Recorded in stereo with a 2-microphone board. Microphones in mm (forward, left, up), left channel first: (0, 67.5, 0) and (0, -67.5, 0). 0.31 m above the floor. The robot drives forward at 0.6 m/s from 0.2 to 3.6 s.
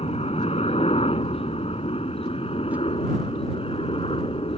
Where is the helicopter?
50° left (ahead or behind); by 4.6 s 45° left (ahead or behind).